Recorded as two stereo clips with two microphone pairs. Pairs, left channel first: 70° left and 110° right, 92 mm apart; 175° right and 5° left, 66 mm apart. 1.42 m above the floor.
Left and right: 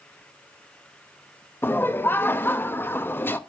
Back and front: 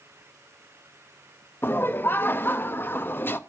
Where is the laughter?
135° left, 0.6 m.